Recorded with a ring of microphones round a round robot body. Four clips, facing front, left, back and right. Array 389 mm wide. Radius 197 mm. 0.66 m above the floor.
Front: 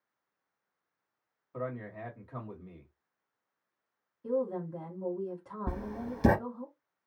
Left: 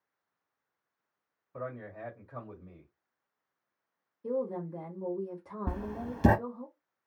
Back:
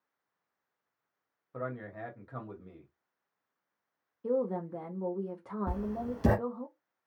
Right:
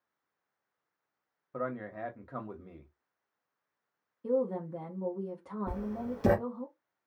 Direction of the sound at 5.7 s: 60° left.